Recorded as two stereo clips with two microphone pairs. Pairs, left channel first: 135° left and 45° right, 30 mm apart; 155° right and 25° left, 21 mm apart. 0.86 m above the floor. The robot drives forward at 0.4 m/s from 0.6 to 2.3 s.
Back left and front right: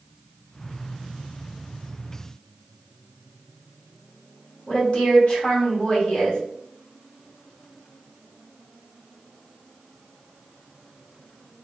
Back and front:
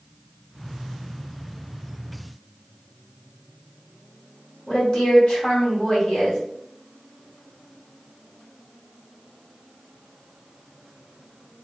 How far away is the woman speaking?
About 1.6 m.